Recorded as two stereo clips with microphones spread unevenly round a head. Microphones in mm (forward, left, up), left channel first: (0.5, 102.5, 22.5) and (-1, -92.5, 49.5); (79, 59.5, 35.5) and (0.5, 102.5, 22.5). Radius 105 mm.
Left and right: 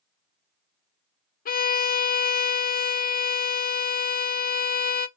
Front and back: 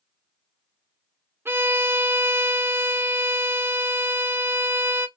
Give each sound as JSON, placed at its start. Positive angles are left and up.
{"t": 1.4, "sound": "a violin", "azimuth_deg": 100, "distance_m": 0.6}